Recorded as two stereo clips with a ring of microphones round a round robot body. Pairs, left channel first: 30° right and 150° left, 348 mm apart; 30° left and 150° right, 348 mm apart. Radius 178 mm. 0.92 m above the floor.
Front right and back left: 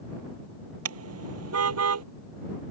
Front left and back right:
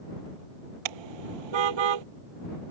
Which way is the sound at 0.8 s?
160° right.